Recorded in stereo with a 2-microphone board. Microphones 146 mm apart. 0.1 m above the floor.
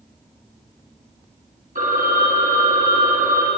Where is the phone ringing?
70° right (ahead or behind), 3 m.